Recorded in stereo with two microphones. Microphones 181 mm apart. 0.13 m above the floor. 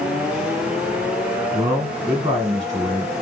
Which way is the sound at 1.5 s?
20° right (ahead or behind).